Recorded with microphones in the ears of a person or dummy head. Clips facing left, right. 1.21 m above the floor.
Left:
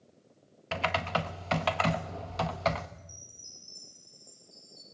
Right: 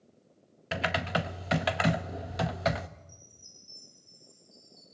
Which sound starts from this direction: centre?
Typing on a keyboard, at 0.7 s.